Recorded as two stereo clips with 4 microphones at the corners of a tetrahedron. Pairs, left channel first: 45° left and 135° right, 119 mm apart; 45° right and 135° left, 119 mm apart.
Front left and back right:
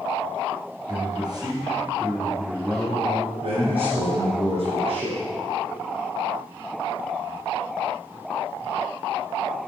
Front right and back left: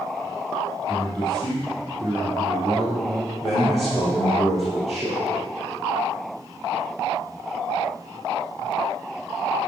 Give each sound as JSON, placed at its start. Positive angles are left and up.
{"t": 0.9, "sound": "a man speaking", "azimuth_deg": 175, "distance_m": 3.0}
{"t": 3.4, "sound": "a man speaking", "azimuth_deg": -135, "distance_m": 2.5}